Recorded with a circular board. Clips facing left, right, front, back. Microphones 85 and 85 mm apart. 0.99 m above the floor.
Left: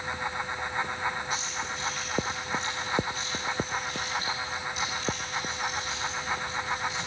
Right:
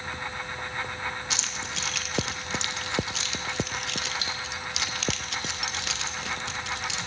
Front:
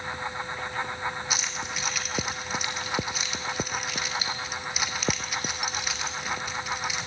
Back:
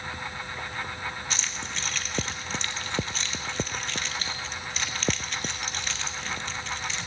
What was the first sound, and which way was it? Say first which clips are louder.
Keys jangling: left 2 dB, front 2 dB; 80° right.